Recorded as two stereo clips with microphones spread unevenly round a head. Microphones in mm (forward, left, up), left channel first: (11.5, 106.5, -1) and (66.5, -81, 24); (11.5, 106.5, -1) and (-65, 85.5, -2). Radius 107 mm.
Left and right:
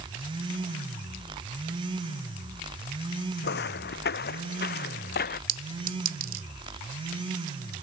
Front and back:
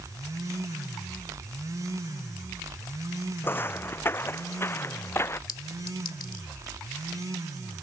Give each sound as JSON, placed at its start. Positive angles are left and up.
{"t": 3.4, "sound": "footsteps", "azimuth_deg": 75}
{"t": 5.5, "sound": "a clink", "azimuth_deg": -30}